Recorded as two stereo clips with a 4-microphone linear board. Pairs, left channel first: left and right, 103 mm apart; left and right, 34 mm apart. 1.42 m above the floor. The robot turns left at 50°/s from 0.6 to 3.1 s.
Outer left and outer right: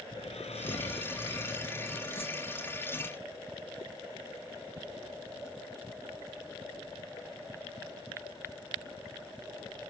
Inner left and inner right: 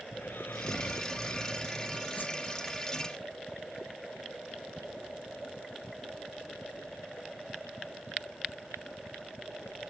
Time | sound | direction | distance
0.1 | snoring | 85° left | ?
2.1 | a whoosh | 65° left (ahead or behind) | ?